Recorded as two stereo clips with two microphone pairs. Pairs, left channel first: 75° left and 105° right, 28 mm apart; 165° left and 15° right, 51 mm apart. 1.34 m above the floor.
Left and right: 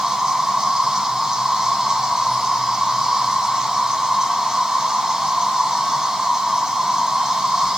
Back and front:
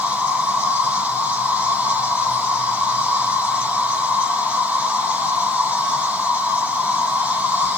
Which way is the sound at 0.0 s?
55° right.